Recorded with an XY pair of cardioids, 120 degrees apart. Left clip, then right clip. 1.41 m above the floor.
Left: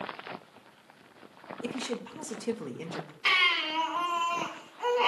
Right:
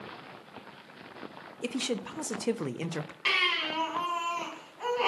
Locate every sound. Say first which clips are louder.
1.6 s a woman speaking: right 3 dB; 40° right, 0.7 m
3.2 s a baby crying: left 2 dB; 5° left, 3.5 m